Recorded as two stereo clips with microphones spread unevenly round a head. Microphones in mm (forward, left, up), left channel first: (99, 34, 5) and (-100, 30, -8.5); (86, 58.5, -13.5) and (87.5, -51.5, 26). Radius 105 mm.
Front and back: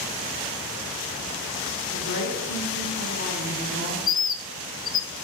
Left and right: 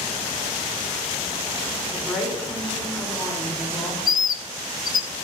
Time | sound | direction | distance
1.9 | a woman speaking | 20° left | 4 m
4.1 | a bird | 30° left | 0.5 m